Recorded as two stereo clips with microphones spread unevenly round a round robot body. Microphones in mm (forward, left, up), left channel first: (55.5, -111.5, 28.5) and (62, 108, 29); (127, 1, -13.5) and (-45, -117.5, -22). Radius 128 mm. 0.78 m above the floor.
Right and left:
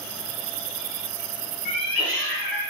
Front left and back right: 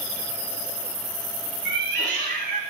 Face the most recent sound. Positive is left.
turn(degrees=170)